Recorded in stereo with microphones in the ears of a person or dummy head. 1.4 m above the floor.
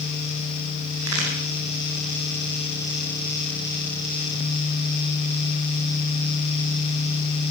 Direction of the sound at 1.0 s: 75° right (ahead or behind).